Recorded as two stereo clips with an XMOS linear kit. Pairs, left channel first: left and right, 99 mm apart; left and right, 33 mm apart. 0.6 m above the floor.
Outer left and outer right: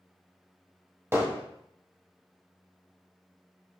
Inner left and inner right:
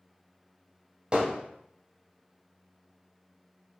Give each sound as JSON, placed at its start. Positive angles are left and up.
{"t": 1.1, "sound": "hammering", "side_deg": -25, "distance_m": 2.5}